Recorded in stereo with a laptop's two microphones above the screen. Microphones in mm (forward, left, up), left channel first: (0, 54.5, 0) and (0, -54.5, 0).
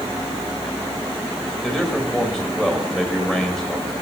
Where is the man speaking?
5° left (ahead or behind), 5 m.